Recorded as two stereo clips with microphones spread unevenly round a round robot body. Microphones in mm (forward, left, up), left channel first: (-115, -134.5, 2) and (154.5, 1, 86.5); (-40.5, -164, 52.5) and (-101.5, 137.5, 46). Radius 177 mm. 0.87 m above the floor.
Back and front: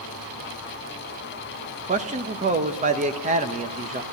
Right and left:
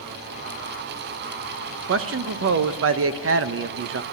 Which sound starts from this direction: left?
A man speaking, at 1.9 s.